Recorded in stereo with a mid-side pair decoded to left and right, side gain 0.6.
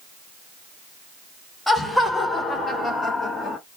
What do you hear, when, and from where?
1.7 s laughter: 15° left, 2.5 m; by 3.6 s 40° left, 2.5 m